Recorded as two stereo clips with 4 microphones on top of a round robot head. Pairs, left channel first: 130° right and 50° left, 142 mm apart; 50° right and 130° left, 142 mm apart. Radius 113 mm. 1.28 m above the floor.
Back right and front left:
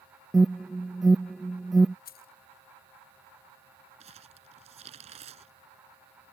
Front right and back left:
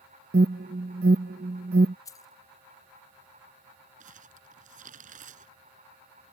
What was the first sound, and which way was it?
An alarm, 140° left.